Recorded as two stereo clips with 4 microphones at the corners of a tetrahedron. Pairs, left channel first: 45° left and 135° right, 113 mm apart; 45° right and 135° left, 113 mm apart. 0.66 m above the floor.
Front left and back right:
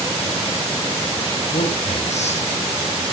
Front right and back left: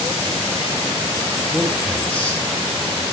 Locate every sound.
1.5 s a man speaking: 50° left, 5.5 m